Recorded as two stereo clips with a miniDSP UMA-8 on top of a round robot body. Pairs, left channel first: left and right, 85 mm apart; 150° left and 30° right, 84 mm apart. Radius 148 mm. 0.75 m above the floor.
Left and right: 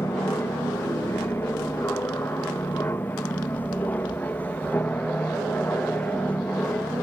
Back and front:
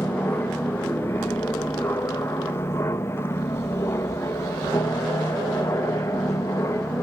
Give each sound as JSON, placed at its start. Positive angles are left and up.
{"t": 0.0, "sound": "an aircraft", "azimuth_deg": 115}